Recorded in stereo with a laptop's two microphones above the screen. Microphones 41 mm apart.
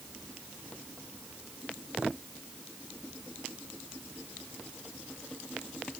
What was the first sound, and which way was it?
Only background noise.